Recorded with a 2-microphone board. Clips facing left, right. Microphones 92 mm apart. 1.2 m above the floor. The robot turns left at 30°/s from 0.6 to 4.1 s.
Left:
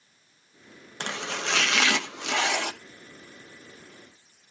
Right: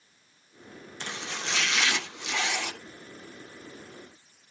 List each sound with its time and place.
1.0 s chopping: 70° left (ahead or behind), 1.1 m; by 2.7 s 60° left (ahead or behind), 1.1 m